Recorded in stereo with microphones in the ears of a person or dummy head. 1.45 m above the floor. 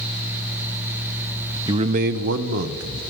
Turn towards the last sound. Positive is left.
turn(degrees=-80)